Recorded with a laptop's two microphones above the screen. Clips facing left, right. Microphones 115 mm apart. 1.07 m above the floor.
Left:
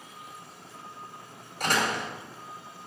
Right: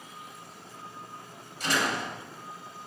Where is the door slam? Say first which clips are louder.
Left 1 dB; 50° left (ahead or behind), 4 m.